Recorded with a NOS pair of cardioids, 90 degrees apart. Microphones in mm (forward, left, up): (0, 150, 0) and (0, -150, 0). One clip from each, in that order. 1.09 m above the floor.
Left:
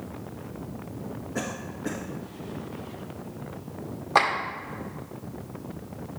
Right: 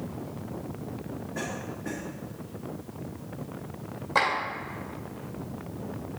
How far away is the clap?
About 1.9 m.